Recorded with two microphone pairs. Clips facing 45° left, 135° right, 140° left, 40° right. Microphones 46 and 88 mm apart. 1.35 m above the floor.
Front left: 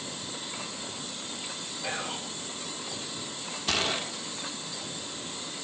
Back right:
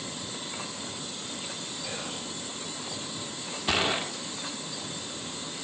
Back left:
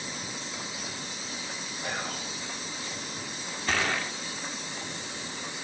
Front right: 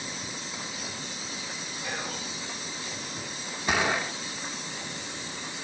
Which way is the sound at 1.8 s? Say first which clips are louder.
Front left 5 dB, back left 1 dB; 100° left.